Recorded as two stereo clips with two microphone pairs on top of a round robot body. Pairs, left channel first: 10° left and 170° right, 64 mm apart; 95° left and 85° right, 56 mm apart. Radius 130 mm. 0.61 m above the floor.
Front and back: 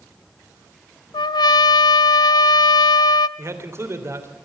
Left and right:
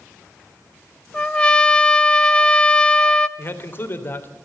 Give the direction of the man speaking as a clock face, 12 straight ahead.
7 o'clock.